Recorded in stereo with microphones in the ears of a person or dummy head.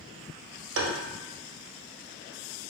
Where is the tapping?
80° right, 0.7 m.